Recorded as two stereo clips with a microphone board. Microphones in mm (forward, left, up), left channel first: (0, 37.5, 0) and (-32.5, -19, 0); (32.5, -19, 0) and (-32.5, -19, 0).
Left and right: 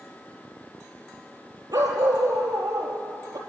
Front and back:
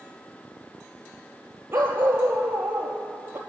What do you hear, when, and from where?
1.7 s a dog barking: 120° right, 4 m